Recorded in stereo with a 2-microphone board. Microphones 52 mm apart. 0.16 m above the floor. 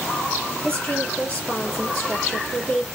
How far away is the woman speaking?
About 4 m.